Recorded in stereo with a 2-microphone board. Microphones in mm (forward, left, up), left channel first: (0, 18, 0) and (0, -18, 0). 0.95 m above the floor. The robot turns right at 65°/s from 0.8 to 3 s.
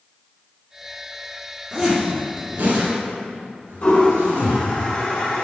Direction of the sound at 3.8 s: 50° left (ahead or behind).